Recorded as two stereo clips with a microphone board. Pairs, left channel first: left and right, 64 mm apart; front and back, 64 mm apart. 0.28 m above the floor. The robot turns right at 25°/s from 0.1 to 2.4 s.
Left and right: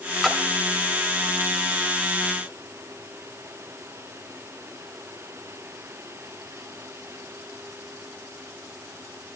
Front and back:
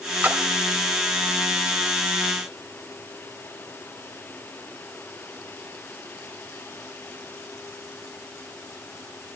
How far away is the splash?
About 1.2 m.